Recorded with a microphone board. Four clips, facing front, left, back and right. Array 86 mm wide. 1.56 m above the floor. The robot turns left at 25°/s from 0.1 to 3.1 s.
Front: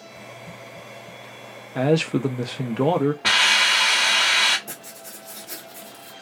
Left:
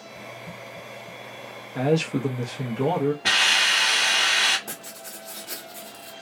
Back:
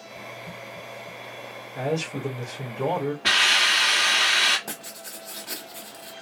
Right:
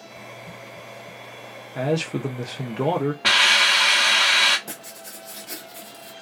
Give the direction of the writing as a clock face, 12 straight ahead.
6 o'clock.